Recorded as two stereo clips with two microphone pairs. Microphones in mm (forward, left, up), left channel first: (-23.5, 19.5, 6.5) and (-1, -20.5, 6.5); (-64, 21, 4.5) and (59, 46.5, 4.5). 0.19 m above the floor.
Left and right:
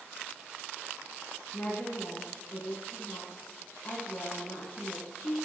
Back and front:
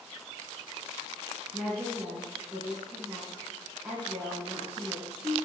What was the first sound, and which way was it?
A woman speaking, 90° left.